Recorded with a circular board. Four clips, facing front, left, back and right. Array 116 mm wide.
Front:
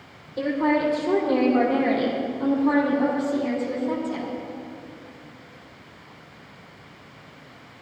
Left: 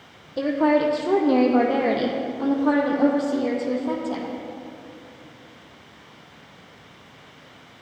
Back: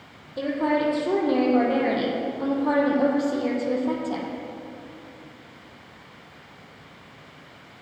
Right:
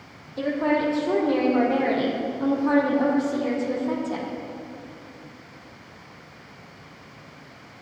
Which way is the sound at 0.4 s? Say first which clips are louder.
Left 4 dB, front 1 dB; 95° left.